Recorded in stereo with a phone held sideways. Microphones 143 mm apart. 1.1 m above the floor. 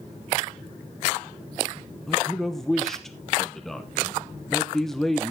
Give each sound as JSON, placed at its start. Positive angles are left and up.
{"t": 2.1, "sound": "a man speaking", "side_deg": 0, "distance_m": 0.9}